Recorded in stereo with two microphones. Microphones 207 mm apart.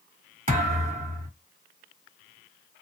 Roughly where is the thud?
Right.